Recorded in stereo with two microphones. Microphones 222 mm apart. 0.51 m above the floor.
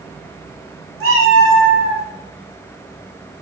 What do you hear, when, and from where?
1.0 s a cat meowing: 80° right, 0.7 m; by 2.0 s 40° right (ahead or behind), 0.9 m